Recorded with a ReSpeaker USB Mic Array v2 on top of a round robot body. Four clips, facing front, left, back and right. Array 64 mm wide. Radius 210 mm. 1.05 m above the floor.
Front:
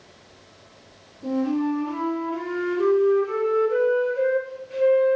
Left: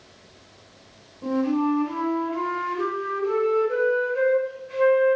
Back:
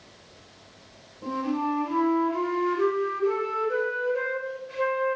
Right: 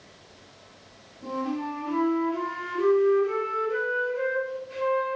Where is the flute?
115° left, 2 m.